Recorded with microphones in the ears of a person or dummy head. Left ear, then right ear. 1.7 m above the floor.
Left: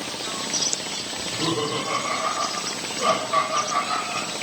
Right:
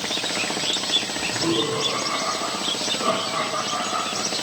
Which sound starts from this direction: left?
Laughter, at 1.2 s.